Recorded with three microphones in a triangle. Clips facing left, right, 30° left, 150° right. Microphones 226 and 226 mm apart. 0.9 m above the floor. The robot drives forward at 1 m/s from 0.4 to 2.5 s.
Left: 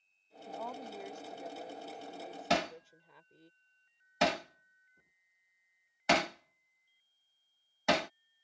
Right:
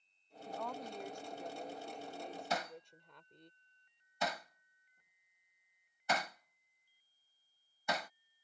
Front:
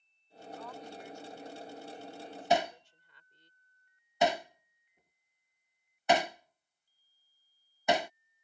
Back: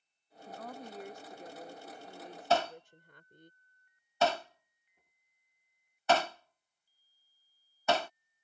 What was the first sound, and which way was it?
A woman speaking, 170° left.